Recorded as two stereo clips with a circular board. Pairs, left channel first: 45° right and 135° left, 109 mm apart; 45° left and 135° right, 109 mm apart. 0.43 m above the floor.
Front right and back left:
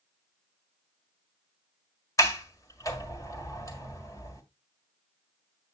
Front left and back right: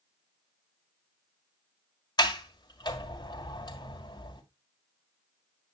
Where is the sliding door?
5° left, 1.7 m.